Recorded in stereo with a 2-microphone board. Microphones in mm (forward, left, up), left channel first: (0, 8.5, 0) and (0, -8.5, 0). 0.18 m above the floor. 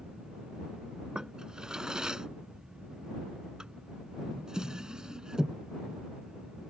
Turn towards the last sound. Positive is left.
turn(degrees=-45)  # may be behind; listen again after turning